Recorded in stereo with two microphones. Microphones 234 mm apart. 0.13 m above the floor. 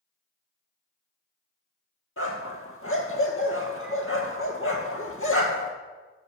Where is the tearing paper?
No tearing paper in this recording.